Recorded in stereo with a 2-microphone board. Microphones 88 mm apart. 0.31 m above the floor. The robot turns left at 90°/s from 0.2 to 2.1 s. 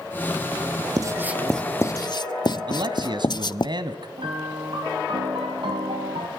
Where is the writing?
45° right (ahead or behind), 0.6 m; by 3.7 s 55° left (ahead or behind), 0.6 m.